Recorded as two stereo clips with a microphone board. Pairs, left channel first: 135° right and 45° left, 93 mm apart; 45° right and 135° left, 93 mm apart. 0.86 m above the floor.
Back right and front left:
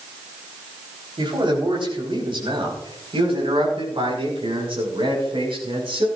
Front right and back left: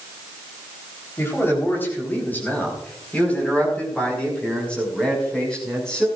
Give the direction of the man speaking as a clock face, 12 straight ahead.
11 o'clock.